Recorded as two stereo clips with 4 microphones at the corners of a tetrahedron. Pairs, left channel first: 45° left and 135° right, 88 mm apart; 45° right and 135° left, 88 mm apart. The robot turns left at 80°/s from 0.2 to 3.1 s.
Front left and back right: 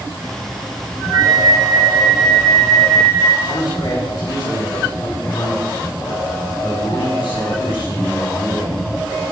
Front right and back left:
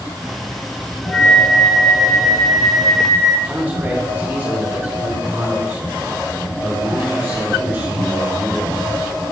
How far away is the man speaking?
About 5 m.